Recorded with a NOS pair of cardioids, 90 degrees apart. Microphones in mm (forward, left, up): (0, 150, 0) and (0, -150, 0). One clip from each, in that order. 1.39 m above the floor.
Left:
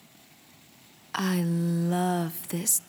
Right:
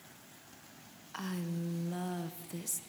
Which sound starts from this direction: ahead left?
A woman speaking, at 1.1 s.